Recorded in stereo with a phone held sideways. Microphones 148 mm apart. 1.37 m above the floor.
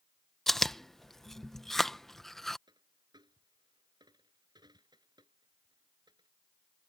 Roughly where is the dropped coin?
Right.